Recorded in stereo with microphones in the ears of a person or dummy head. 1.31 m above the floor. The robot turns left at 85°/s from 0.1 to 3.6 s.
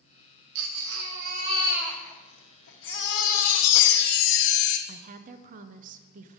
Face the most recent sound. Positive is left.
turn(degrees=-45)  # may be behind; listen again after turning